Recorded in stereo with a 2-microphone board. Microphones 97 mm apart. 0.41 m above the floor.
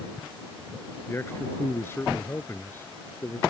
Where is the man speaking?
25° left (ahead or behind).